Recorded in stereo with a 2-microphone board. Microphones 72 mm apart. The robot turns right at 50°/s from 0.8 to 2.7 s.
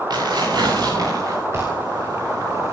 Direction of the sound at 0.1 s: 75° right.